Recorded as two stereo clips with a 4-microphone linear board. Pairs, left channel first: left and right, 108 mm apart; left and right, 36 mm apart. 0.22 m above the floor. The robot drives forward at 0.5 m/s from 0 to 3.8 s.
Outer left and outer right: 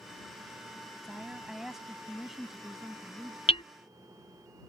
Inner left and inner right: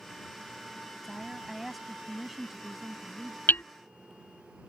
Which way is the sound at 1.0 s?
5° right (ahead or behind).